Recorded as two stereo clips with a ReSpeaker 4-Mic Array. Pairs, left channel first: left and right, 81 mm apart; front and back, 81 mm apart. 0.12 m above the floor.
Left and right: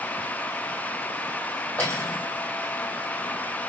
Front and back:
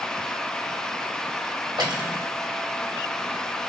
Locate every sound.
1.8 s cutlery clinking: 160° left, 2.5 m